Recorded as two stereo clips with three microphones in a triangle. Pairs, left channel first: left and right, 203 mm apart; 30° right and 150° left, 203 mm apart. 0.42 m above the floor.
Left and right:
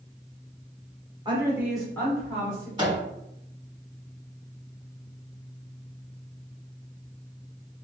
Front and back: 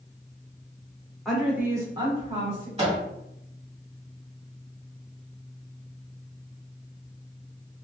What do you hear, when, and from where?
1.2 s a woman speaking: 120° right, 0.9 m; by 2.7 s 120° left, 1.0 m
2.8 s a microwave: 155° right, 1.4 m